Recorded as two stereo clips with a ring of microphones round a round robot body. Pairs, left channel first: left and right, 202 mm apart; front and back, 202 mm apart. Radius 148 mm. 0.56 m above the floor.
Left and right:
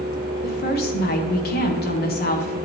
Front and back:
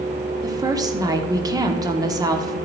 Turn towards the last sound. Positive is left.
turn(degrees=110)